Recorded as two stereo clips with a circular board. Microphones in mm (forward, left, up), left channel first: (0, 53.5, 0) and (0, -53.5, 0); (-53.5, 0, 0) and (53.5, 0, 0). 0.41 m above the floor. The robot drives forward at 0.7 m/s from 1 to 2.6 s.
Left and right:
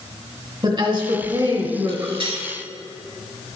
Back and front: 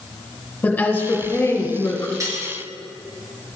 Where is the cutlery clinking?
55° right, 3.5 m; by 2.4 s 60° right, 3.5 m.